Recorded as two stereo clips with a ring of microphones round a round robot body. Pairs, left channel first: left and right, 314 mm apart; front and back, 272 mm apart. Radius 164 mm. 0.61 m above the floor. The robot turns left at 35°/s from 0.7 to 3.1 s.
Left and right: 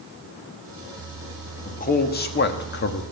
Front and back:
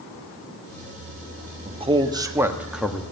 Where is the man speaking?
135° left, 1.3 m; by 3.0 s 85° left, 1.3 m.